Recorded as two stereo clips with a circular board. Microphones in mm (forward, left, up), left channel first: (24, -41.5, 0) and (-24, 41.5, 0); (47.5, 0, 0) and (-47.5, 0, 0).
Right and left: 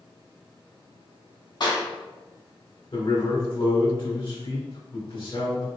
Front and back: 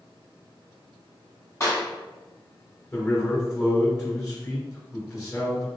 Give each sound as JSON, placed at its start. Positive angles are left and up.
{"t": 1.6, "sound": "a clap", "azimuth_deg": -50, "distance_m": 1.9}
{"t": 2.9, "sound": "a man speaking", "azimuth_deg": -65, "distance_m": 1.7}